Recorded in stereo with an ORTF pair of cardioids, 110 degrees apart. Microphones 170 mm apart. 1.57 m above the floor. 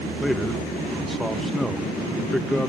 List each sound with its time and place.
0.2 s a man speaking: straight ahead, 2 m